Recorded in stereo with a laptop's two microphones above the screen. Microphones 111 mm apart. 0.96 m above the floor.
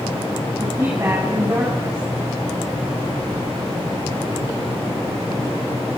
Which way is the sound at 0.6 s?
25° right (ahead or behind).